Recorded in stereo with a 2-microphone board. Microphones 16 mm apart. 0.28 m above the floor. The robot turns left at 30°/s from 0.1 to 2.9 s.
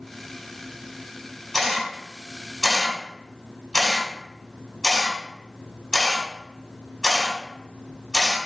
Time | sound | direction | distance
1.5 | a camera shutter | 10° right (ahead or behind) | 1.6 m